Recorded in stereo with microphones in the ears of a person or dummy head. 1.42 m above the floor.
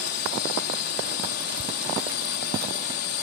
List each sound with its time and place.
0.0 s a drone: 60° left (ahead or behind)